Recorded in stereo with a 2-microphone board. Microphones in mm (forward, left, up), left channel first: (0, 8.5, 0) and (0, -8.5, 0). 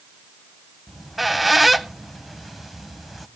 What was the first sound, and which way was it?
A squeak, 15° right (ahead or behind).